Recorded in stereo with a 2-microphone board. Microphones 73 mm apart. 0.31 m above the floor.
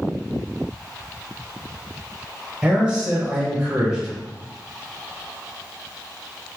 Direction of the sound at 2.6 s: 15° right (ahead or behind).